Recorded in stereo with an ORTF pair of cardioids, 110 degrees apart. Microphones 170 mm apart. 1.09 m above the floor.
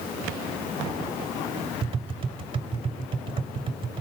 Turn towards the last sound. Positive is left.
turn(degrees=-30)